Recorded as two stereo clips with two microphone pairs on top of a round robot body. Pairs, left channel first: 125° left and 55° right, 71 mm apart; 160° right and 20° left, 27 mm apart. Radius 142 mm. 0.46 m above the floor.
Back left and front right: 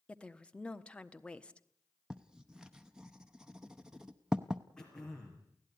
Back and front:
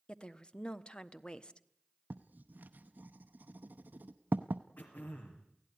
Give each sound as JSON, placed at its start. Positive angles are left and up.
{"t": 0.1, "sound": "a woman speaking", "azimuth_deg": -155, "distance_m": 1.4}
{"t": 2.1, "sound": "writing", "azimuth_deg": 30, "distance_m": 0.7}
{"t": 4.8, "sound": "throat clearing", "azimuth_deg": -155, "distance_m": 4.5}